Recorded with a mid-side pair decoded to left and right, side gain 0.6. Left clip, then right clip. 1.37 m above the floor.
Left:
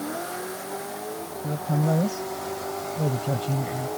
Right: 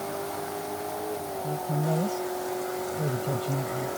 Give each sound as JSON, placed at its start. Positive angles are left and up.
{"t": 1.4, "sound": "a woman speaking", "azimuth_deg": 30}